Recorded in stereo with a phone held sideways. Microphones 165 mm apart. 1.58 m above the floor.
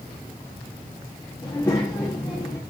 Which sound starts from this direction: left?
A child speaking, at 1.4 s.